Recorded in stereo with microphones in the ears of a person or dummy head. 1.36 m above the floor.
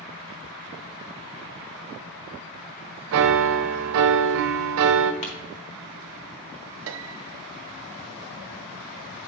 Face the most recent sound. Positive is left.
turn(degrees=-70)  # may be behind; listen again after turning